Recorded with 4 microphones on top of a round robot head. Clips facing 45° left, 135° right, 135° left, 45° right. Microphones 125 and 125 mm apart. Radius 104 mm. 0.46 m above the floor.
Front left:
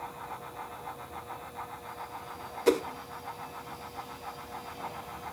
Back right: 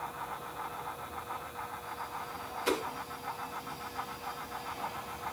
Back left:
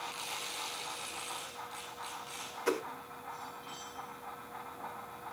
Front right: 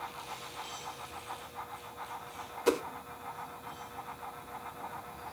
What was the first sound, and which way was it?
A whoosh, 15° left.